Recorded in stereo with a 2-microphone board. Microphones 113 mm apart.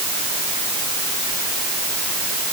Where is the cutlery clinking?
No cutlery clinking in this recording.